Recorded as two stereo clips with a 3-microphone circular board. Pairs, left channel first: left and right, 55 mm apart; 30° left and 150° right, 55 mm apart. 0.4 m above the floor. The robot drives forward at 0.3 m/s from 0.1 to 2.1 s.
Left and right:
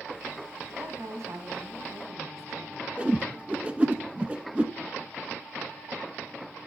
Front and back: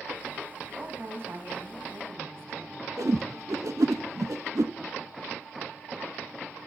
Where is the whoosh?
155° right, 0.9 m.